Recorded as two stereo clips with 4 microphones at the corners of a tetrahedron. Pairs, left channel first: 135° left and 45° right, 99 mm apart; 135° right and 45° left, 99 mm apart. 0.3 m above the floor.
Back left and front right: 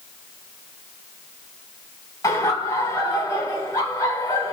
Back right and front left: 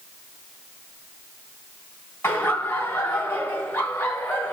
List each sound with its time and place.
2.2 s laughter: 165° left, 1.3 m